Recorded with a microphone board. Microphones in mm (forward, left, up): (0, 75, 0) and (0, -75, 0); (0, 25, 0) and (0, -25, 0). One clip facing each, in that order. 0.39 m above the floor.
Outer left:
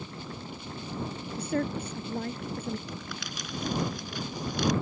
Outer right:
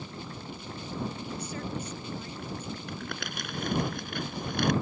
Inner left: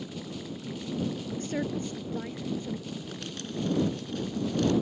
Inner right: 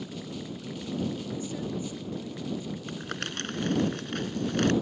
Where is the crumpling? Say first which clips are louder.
Outer right 2 dB, inner right 3 dB; 65° right (ahead or behind).